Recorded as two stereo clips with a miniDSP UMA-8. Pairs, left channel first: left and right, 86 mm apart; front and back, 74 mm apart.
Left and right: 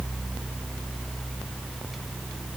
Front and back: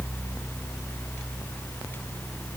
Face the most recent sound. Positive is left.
No sound to turn to.